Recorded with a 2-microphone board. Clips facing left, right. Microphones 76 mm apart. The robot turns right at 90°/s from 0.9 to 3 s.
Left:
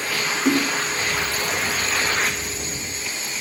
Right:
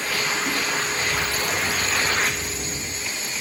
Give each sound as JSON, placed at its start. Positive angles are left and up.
{"t": 0.5, "sound": "a splash", "side_deg": 80}